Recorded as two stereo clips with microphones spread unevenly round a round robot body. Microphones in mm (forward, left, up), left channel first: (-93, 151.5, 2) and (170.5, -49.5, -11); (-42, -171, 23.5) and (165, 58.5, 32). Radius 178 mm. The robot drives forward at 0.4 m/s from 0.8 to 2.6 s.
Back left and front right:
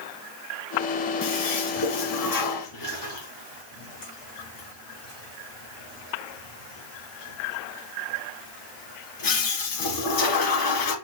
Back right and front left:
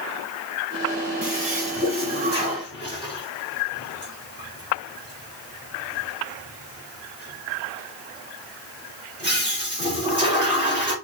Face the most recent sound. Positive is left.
turn(degrees=125)